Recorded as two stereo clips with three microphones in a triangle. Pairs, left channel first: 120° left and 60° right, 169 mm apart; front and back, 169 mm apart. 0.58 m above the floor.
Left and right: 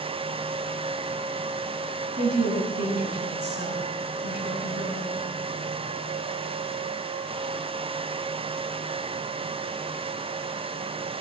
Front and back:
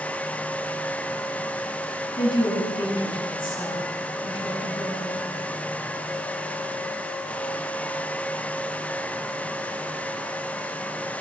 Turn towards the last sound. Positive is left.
turn(degrees=-65)